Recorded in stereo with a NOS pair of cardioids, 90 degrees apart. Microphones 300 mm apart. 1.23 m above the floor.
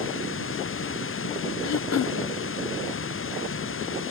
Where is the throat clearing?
60° left.